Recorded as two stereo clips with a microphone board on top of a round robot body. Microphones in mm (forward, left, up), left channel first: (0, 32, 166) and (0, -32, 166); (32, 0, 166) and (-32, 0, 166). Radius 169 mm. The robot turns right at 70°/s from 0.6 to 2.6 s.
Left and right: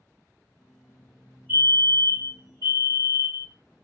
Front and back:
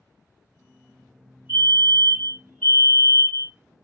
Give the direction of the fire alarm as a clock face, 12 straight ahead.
5 o'clock.